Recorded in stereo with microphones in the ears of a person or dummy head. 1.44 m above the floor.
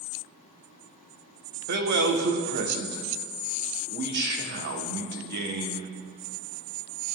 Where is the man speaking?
60° right (ahead or behind), 0.9 m.